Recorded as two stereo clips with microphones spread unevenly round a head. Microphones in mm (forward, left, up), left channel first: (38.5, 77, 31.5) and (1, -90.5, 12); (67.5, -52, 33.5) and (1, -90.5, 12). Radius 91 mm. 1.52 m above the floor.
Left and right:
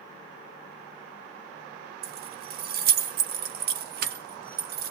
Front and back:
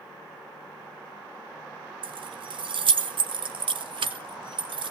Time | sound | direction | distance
2.0 | keys jangling | 145° right | 1.2 m